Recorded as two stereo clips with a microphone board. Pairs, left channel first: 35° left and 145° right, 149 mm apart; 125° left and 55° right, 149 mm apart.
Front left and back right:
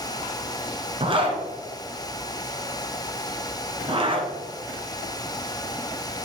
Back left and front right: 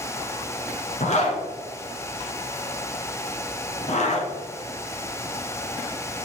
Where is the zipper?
160° left, 1.8 m.